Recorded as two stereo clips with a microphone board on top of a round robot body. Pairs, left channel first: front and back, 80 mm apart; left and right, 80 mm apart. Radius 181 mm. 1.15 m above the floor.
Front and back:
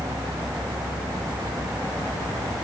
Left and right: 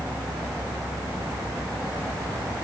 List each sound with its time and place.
Only background noise.